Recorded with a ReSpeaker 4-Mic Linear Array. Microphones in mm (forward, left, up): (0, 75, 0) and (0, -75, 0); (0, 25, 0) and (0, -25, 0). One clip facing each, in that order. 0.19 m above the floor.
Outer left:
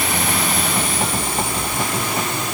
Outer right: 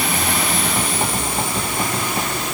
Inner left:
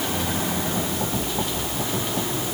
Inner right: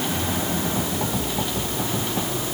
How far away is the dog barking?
No dog barking in this recording.